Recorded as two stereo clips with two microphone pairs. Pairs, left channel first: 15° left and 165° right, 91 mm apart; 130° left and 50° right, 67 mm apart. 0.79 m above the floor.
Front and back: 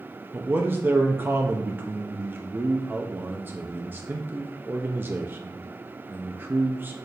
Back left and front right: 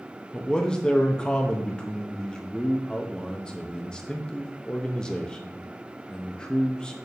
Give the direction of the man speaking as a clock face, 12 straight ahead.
6 o'clock.